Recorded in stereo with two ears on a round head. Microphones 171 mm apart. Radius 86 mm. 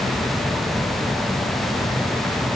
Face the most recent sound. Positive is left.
No sound to turn to.